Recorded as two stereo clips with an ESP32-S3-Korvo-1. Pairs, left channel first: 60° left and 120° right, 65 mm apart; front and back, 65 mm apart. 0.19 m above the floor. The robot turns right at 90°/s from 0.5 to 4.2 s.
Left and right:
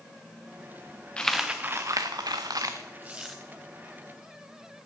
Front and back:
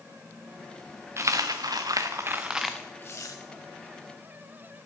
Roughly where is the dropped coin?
Behind left.